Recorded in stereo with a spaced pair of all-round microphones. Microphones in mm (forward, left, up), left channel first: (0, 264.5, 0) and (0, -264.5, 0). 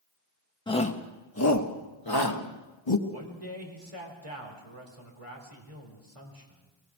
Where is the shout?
10° left (ahead or behind), 1.5 m; by 3.0 s 55° left (ahead or behind), 2 m.